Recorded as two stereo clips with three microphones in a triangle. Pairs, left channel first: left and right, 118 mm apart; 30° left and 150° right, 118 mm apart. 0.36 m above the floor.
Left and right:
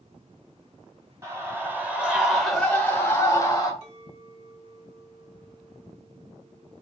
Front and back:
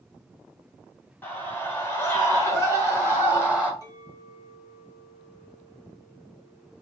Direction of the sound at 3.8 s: 95° right.